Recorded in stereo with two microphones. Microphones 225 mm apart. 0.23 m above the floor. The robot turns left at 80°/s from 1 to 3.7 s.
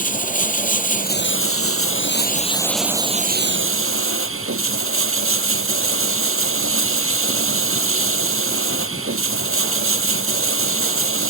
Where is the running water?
145° left; by 11.3 s 75° right.